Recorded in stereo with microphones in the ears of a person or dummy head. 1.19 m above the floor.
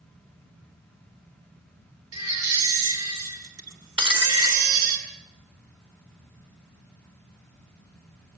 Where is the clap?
I don't hear a clap.